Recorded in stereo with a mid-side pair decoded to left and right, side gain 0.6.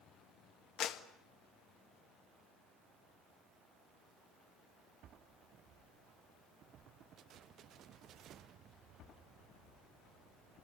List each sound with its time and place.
0.8 s a clap: 55° left, 1.6 m